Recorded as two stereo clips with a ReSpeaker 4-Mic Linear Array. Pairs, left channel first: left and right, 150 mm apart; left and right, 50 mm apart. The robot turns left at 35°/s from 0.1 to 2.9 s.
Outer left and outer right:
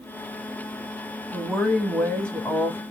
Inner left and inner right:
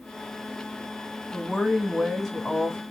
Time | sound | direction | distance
1.3 | a woman speaking | 5° right (ahead or behind) | 1.1 m